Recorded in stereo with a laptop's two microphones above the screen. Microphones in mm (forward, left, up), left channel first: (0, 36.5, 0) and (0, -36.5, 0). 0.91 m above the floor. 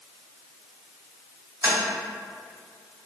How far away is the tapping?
About 1.6 m.